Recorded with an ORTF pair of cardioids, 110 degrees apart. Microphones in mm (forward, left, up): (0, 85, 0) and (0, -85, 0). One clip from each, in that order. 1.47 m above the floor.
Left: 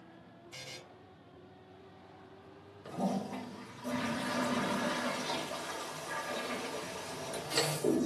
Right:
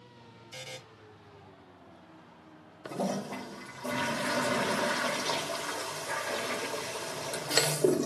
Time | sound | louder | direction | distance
0.5 | a buzzer | right 4 dB | 25° right | 0.7 m
2.9 | a toilet flushing | right 3 dB | 45° right | 0.6 m